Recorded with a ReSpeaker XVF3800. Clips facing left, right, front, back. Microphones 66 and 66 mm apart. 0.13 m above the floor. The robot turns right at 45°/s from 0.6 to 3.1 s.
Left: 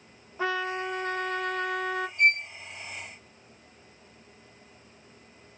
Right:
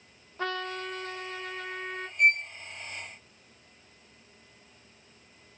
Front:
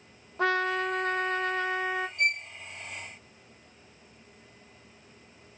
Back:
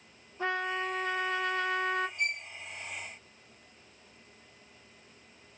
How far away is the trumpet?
About 0.8 m.